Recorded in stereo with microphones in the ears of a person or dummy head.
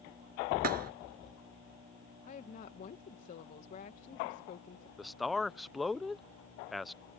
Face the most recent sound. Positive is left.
turn(degrees=0)  # may be behind; listen again after turning